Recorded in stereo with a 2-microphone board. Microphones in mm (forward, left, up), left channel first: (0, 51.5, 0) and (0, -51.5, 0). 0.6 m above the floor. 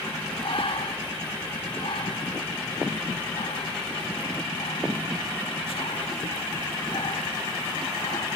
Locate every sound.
0.4 s breathing: 60° left (ahead or behind), 1.5 m